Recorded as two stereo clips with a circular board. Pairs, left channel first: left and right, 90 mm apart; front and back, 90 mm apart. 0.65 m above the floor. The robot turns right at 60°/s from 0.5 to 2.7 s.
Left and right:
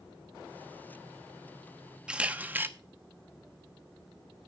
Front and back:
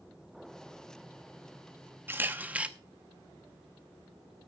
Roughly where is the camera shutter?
Behind.